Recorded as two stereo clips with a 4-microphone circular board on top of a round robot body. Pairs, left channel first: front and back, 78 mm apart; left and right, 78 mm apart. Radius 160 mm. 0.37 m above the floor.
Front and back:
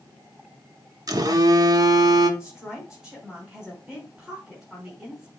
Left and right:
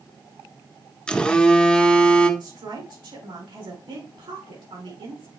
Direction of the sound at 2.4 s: 100° right.